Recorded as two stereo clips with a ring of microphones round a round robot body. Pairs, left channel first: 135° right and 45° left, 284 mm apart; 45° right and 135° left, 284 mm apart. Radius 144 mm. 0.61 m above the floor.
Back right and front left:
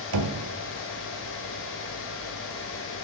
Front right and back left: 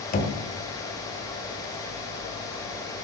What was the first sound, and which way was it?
Knocking, 15° left.